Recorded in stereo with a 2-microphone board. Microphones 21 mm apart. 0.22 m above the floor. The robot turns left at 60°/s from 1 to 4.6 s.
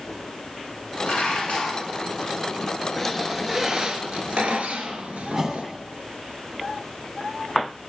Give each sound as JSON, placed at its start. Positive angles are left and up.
{"t": 1.1, "sound": "dishes clattering", "azimuth_deg": 90, "distance_m": 1.8}
{"t": 3.0, "sound": "a squeak", "azimuth_deg": 15, "distance_m": 0.8}
{"t": 5.3, "sound": "a whoosh", "side_deg": -35, "distance_m": 1.2}